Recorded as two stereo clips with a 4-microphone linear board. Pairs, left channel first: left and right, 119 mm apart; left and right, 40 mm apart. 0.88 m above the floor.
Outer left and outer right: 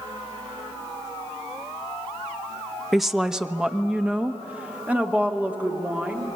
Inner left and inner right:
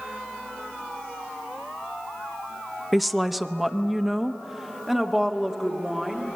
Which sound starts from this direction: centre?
A woman speaking, at 2.9 s.